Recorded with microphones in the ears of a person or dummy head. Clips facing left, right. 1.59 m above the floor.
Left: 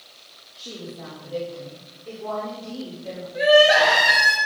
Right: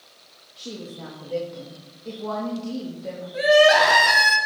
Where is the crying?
80° right, 3 m.